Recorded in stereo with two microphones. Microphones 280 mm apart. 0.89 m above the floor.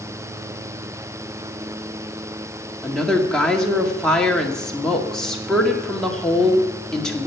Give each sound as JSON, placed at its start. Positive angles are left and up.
{"t": 2.8, "sound": "a woman speaking", "side_deg": 5, "distance_m": 1.9}